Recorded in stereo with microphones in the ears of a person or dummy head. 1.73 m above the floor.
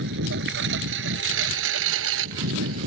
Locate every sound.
0.0 s a lawn mower: 65° right (ahead or behind); by 2.9 s 75° right (ahead or behind)